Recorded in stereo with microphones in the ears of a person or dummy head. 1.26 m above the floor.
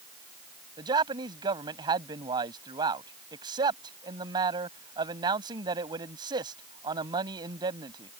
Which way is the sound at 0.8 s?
25° right (ahead or behind).